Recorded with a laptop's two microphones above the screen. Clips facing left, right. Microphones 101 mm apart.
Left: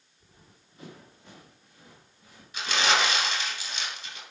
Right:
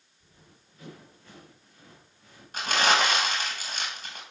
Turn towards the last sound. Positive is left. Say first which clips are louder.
# right 2 dB
turn(degrees=-45)  # may be behind; listen again after turning